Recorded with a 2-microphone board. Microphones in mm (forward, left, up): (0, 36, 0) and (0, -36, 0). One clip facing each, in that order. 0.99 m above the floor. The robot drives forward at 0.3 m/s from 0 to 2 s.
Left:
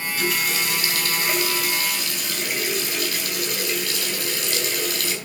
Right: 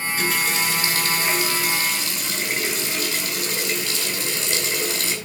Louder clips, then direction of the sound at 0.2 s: Right 1 dB; 35° right (ahead or behind).